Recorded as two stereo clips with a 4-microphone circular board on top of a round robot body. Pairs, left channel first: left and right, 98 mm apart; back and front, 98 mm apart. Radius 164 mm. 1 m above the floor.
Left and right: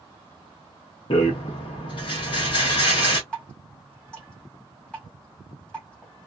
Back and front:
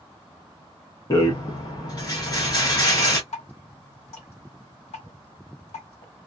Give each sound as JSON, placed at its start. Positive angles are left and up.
{"t": 1.1, "sound": "a rattle", "azimuth_deg": 130, "distance_m": 0.6}
{"t": 3.3, "sound": "dripping", "azimuth_deg": 170, "distance_m": 1.5}